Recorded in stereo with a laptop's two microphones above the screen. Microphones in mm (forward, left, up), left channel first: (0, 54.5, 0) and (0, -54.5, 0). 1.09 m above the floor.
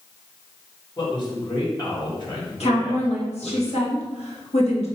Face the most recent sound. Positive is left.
turn(degrees=75)  # may be behind; listen again after turning